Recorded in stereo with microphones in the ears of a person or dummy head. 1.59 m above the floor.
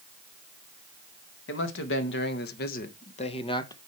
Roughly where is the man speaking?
Left.